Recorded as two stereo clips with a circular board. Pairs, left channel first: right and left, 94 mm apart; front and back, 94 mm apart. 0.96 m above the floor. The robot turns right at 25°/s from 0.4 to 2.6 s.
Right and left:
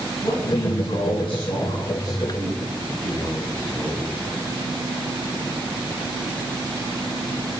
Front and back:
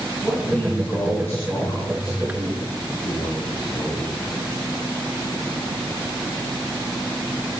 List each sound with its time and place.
0.2 s a man speaking: 85° right, 6 m; by 4.1 s 30° right, 6 m